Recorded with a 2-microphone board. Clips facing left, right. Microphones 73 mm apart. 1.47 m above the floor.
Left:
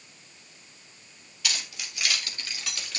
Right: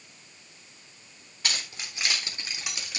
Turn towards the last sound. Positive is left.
turn(degrees=-10)  # may be behind; listen again after turning